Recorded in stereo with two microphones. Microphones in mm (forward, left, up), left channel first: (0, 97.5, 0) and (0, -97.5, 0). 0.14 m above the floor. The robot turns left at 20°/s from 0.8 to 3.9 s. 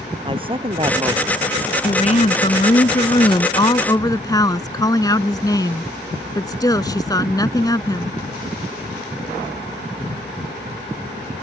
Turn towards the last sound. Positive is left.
turn(degrees=30)